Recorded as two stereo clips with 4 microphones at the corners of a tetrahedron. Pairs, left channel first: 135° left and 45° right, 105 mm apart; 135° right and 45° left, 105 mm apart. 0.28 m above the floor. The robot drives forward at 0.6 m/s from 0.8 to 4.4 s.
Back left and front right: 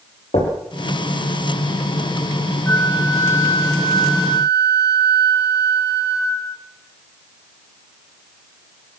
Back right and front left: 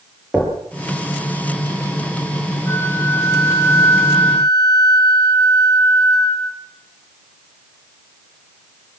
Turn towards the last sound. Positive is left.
turn(degrees=180)